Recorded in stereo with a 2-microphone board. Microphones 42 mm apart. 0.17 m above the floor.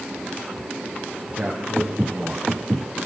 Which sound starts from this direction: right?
A man speaking, at 1.3 s.